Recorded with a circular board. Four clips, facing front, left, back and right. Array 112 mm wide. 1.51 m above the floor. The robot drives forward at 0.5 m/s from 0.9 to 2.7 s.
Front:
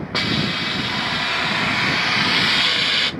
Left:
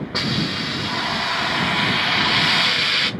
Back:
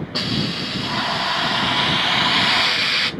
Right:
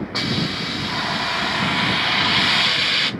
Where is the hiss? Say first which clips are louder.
Left 1 dB, front 2 dB; straight ahead, 1.1 m; by 3.1 s 160° left, 0.7 m.